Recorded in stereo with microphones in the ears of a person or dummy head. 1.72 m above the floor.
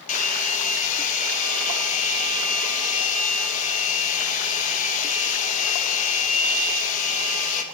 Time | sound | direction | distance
0.1 | a hair dryer | 40° left (ahead or behind) | 2.5 m